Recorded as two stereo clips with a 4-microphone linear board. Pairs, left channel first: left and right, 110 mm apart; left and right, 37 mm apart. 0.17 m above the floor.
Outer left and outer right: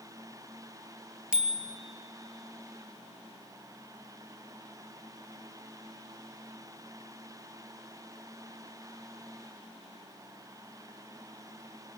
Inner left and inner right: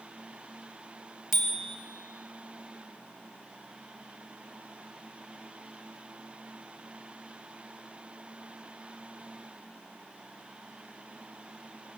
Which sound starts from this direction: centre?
A bicycle bell, at 1.3 s.